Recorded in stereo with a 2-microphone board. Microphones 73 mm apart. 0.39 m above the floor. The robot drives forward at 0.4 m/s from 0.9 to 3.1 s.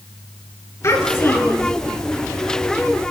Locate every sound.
0.8 s a child speaking: 45° left (ahead or behind), 4.5 m; by 1.7 s 40° left (ahead or behind), 4.5 m